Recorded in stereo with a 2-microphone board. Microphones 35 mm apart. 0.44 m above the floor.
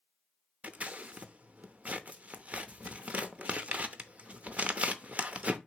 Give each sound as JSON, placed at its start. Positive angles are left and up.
{"t": 0.6, "sound": "scissors", "side_deg": -40, "distance_m": 0.7}